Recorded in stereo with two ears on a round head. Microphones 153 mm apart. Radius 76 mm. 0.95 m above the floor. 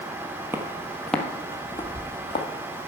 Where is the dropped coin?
No dropped coin in this recording.